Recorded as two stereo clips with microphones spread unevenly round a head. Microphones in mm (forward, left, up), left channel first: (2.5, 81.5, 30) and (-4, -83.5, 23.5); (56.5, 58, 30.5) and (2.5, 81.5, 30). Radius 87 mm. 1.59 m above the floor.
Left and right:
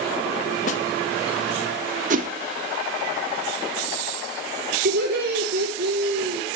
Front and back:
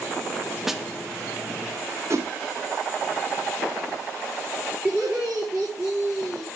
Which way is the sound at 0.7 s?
75° left.